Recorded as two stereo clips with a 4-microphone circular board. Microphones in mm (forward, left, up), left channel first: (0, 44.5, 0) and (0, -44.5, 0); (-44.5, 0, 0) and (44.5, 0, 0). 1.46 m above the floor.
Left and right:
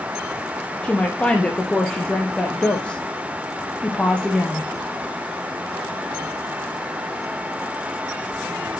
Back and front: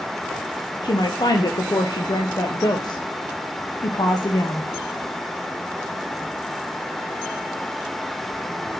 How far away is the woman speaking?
About 0.5 m.